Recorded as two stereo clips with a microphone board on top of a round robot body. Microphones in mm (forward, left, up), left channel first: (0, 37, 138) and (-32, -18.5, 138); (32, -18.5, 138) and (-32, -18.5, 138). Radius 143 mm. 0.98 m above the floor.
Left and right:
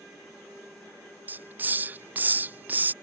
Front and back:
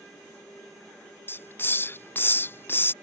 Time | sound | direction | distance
1.3 | a hiss | 60° right | ?